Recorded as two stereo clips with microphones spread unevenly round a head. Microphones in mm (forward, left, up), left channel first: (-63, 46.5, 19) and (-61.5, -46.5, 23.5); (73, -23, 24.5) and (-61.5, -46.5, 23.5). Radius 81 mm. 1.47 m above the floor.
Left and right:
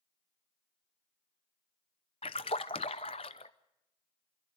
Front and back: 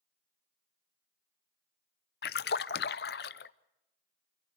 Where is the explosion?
No explosion in this recording.